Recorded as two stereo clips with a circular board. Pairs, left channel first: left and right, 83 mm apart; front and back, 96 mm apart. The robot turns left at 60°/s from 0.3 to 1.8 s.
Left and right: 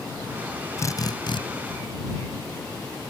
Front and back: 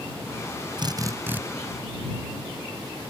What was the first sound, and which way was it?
A drill, 145° left.